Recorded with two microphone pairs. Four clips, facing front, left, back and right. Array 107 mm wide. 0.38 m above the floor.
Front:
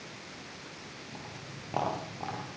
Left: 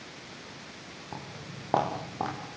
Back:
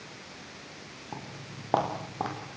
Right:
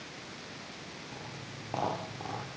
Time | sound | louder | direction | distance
1.1 | footsteps | left 6 dB, back 6 dB | 150° left | 9 m